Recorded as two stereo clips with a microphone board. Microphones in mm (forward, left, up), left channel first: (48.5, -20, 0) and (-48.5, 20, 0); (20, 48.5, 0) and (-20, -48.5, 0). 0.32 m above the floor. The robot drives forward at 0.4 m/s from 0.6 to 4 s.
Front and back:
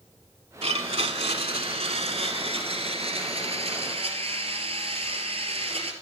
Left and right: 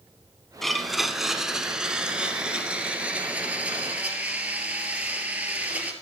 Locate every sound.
0.6 s a blender: 155° left, 0.8 m; by 5.9 s 170° left, 2 m